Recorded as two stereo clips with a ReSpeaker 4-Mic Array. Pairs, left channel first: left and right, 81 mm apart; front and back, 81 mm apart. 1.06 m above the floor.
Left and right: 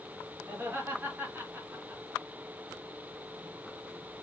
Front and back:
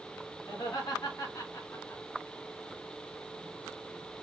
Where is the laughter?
30° right, 1.6 m; by 2.0 s 45° right, 0.7 m.